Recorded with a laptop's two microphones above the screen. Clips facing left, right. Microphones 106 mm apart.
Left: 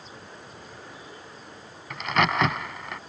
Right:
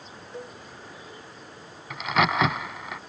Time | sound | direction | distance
0.3 | a cowbell | 85° right | ?
1.9 | a crack | centre (ahead or behind) | ?